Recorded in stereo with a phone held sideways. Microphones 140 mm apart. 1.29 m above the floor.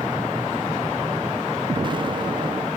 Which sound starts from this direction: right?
An explosion, at 1.7 s.